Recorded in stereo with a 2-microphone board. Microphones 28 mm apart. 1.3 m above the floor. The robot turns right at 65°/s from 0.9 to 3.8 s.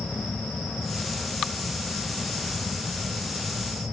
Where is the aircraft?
110° left; by 3.9 s 60° right.